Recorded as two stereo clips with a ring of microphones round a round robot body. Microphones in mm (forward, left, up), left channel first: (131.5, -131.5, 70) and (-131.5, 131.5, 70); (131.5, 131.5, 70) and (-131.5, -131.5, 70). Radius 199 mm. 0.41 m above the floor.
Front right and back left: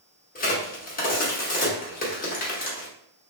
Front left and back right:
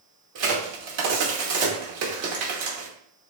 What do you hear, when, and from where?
0.3 s a crack: 105° right, 1.0 m